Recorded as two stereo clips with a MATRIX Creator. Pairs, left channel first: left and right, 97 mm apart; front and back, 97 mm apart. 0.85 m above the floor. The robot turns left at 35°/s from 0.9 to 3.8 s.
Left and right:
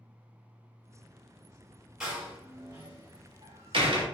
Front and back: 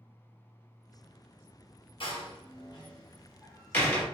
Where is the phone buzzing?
No phone buzzing in this recording.